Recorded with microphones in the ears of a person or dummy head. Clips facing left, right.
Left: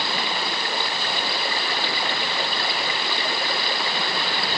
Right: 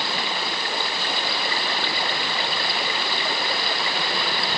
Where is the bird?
I don't hear a bird.